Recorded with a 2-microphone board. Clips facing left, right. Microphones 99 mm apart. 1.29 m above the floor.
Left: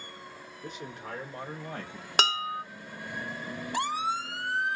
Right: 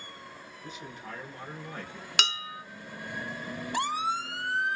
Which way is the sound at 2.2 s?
35° left (ahead or behind).